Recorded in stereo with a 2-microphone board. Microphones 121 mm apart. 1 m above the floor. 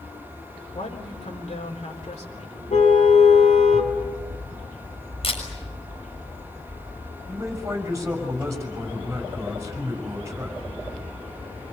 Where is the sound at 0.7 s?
70° left (ahead or behind), 3.5 m.